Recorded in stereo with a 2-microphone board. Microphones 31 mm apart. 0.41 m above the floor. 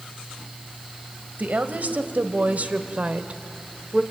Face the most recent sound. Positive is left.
turn(degrees=-30)  # may be behind; listen again after turning